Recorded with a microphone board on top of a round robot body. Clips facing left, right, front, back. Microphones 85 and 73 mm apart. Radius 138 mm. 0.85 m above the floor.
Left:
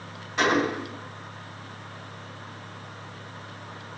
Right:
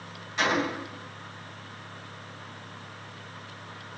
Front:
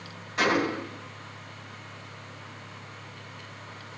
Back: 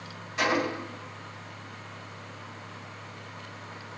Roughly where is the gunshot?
Ahead left.